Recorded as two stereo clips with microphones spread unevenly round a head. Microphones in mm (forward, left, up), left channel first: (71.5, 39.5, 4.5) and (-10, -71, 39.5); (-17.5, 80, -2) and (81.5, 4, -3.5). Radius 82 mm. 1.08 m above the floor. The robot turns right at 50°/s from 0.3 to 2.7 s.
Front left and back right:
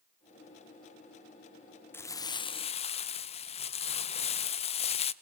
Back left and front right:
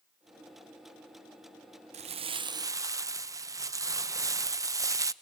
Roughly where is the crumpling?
Ahead.